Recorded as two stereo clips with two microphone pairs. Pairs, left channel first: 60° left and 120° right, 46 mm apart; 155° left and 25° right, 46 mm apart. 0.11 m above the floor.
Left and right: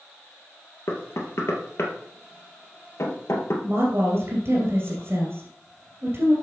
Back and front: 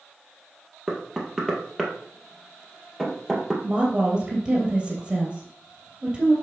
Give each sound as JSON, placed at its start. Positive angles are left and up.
{"t": 0.9, "sound": "knocking", "azimuth_deg": 70, "distance_m": 2.0}
{"t": 3.6, "sound": "a woman speaking", "azimuth_deg": -100, "distance_m": 2.5}